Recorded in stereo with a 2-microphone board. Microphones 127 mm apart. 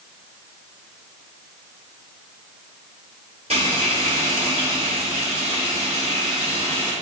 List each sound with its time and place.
3.5 s frying: 55° right (ahead or behind), 1.9 m